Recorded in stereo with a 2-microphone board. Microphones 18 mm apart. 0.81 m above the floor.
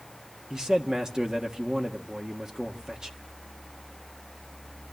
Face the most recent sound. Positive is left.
turn(degrees=-35)  # may be behind; listen again after turning